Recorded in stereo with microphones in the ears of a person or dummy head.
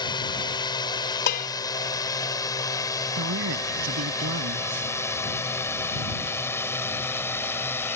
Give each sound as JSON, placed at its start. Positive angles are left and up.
{"t": 0.0, "sound": "a drone", "side_deg": 20}
{"t": 1.3, "sound": "dishes clattering", "side_deg": 50}
{"t": 3.2, "sound": "a man speaking", "side_deg": -80}